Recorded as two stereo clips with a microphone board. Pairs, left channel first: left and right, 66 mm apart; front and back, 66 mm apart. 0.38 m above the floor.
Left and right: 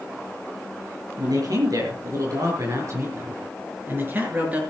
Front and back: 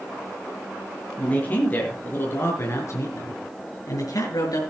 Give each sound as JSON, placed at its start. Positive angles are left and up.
{"t": 1.2, "sound": "a man speaking", "azimuth_deg": -70, "distance_m": 6.0}